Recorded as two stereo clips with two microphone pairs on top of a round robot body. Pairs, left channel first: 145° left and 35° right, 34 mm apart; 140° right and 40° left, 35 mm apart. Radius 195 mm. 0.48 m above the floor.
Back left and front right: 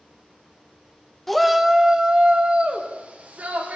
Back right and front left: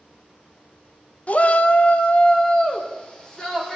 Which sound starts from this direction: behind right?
A shout, at 1.3 s.